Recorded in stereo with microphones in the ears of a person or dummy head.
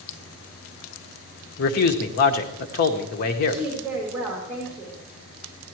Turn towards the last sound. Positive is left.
turn(degrees=-10)  # may be behind; listen again after turning